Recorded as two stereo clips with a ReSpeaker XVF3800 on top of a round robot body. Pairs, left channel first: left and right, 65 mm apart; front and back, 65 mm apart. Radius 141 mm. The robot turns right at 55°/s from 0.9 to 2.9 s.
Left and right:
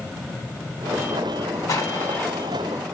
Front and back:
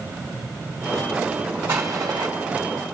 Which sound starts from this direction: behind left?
An explosion, at 1.7 s.